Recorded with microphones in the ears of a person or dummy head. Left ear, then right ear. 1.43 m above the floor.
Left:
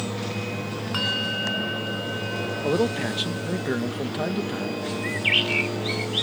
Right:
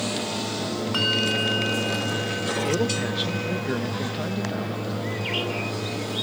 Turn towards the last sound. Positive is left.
turn(degrees=55)  # may be behind; listen again after turning